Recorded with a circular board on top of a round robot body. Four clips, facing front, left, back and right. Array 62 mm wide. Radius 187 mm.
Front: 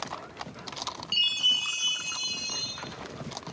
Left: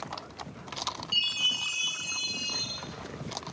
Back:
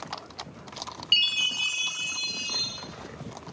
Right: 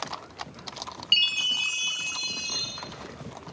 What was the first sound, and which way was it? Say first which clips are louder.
A chime: right 6 dB, back 2 dB; 130° right.